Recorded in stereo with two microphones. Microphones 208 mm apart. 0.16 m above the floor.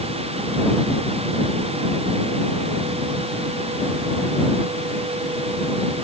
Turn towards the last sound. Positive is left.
No sound to turn to.